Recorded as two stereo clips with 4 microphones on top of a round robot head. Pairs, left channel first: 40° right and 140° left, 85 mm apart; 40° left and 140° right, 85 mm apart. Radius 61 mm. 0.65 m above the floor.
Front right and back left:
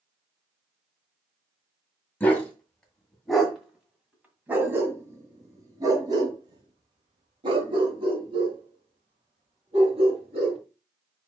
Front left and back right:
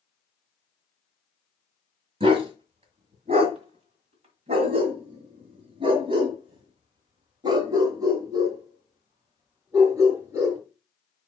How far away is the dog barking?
About 2 m.